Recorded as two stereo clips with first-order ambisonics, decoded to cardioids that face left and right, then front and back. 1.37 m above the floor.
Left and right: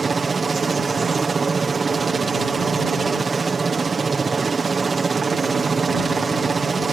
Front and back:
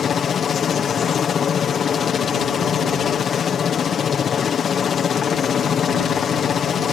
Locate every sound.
0.0 s a helicopter: 35° right